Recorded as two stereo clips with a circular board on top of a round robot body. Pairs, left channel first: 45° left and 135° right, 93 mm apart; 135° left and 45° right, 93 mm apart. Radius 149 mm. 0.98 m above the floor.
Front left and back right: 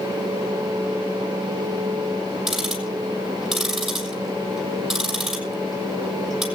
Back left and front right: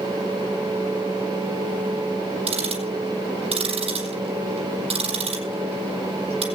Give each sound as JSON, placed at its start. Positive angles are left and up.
{"t": 2.5, "sound": "ticking", "azimuth_deg": -50, "distance_m": 6.5}